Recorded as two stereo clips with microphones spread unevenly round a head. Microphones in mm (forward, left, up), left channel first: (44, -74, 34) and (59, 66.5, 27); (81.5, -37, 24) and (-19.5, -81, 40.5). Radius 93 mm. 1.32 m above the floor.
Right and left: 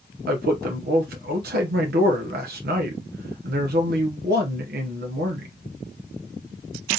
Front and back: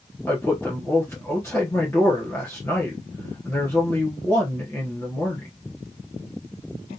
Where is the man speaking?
100° left, 1.0 m.